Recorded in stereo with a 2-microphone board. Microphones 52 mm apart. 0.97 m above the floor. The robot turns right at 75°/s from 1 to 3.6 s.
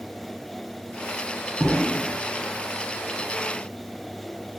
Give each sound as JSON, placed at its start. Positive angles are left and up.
{"t": 1.6, "sound": "an explosion", "azimuth_deg": 170, "distance_m": 0.9}